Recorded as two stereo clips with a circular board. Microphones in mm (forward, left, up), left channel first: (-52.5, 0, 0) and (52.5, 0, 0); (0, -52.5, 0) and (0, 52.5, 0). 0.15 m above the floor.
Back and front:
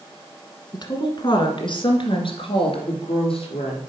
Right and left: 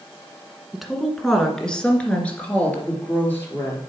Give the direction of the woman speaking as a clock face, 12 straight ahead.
6 o'clock.